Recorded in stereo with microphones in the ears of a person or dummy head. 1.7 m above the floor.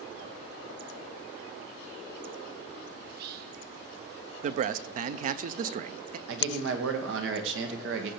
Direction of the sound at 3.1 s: 60° right (ahead or behind).